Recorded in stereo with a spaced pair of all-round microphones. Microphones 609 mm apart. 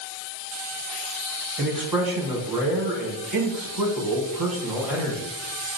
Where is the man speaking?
35° right (ahead or behind), 1.4 m.